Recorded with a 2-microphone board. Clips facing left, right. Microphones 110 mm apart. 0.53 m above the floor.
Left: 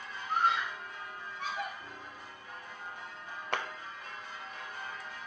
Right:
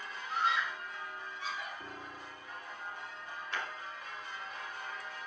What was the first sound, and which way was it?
A scream, 50° left (ahead or behind).